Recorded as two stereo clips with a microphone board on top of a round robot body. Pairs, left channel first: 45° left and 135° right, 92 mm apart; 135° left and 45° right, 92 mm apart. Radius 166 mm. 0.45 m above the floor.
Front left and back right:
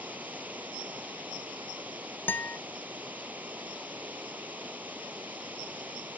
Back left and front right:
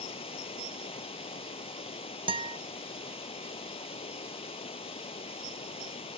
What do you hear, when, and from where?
0.0 s running water: 150° left
2.3 s a guitar: 25° right